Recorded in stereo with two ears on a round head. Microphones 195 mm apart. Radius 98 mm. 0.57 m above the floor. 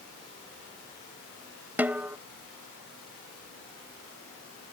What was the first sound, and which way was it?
A snare drum, 5° right (ahead or behind).